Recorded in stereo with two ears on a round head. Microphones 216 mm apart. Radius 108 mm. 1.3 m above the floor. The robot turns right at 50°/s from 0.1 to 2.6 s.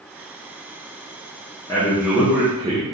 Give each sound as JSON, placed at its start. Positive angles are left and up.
{"t": 1.7, "sound": "a man speaking", "azimuth_deg": 160, "distance_m": 0.7}